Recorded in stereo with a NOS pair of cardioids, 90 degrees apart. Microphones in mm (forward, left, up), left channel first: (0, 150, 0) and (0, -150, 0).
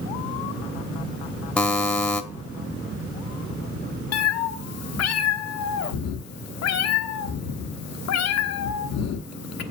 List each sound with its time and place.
1.6 s a buzzer: 5° left, 1.0 m
4.1 s a cat meowing: 65° left, 1.0 m